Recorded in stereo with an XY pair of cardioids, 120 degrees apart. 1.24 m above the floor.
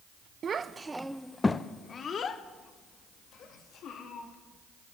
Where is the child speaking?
40° right, 0.6 m; by 4.3 s 65° left, 2 m.